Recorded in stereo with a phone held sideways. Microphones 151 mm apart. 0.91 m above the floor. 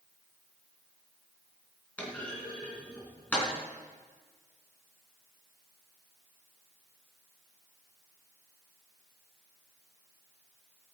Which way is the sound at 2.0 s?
10° left (ahead or behind).